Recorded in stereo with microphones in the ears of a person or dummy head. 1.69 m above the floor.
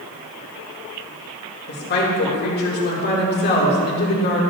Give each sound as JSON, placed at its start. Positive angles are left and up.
{"t": 1.7, "sound": "a woman speaking", "side_deg": 50, "distance_m": 2.0}